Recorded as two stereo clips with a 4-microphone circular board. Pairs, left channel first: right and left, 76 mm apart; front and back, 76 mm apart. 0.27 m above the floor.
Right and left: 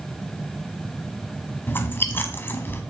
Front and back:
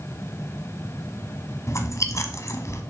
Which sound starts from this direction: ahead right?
Chewing, at 1.7 s.